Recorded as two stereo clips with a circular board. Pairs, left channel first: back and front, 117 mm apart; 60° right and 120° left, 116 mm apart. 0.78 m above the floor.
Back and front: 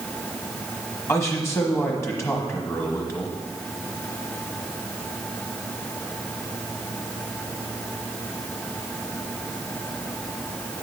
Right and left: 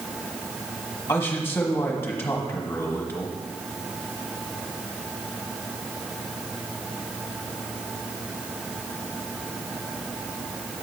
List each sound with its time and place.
1.1 s a man speaking: 120° right, 1.1 m